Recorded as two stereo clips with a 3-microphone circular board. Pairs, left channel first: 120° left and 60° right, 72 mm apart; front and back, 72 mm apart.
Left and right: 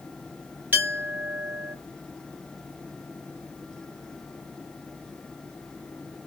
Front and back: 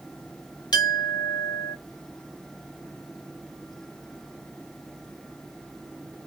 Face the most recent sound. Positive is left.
turn(degrees=5)